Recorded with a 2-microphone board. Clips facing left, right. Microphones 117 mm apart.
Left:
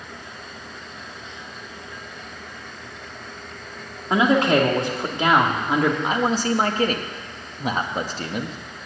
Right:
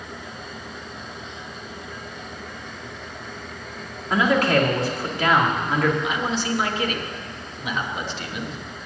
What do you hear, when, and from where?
4.1 s a man speaking: 25° left (ahead or behind), 2 m
6.0 s a man speaking: 40° left (ahead or behind), 1.1 m